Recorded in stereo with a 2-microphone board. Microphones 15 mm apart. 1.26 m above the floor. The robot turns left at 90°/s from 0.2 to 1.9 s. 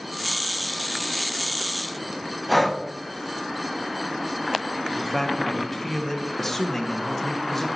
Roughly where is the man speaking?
Centre.